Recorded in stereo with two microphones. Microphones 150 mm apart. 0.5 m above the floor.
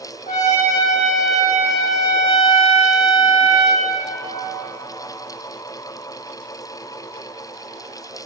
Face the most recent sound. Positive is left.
turn(degrees=50)  # may be behind; listen again after turning